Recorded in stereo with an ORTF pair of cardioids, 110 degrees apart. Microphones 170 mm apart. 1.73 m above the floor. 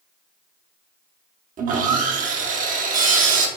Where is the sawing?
50° right, 0.6 m.